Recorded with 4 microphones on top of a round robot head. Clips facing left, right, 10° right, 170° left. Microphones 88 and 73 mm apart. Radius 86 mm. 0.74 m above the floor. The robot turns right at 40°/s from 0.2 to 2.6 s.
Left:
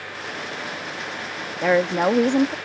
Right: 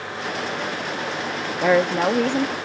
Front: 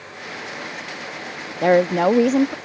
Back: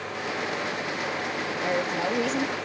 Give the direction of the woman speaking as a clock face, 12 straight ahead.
12 o'clock.